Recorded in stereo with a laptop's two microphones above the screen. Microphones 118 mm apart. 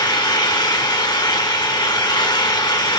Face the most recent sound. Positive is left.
turn(degrees=35)  # may be behind; listen again after turning